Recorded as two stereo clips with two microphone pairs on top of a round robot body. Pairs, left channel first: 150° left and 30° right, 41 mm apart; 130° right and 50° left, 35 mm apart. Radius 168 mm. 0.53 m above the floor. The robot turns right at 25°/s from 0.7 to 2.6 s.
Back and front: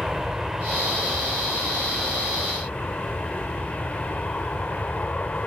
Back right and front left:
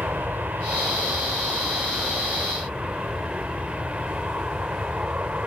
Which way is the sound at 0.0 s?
45° left.